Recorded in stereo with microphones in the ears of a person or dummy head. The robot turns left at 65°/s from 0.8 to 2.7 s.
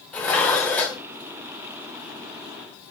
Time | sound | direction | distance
0.1 | dishes clattering | 5° left (ahead or behind) | 0.7 m